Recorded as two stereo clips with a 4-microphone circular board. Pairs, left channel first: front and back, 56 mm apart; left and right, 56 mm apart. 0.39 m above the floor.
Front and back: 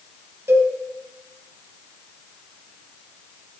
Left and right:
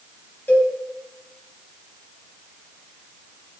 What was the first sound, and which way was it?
A cowbell, 150° left.